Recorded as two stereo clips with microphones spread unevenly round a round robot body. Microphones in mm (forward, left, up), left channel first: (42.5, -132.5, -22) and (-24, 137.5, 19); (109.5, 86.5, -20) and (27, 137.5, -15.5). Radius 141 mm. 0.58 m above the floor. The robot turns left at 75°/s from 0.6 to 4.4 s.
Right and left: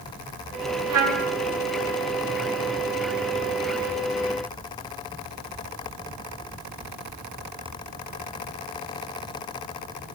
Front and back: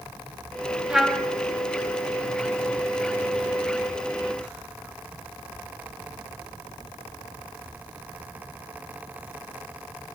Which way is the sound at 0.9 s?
70° left.